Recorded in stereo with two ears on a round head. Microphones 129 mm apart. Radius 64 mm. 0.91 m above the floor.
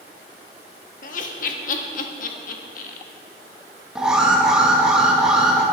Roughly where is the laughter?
Left.